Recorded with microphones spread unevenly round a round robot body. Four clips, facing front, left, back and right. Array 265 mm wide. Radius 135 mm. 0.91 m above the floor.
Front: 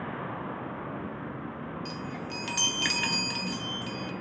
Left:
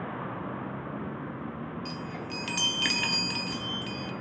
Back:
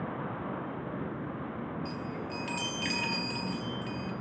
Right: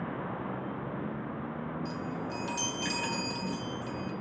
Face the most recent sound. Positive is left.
turn(degrees=60)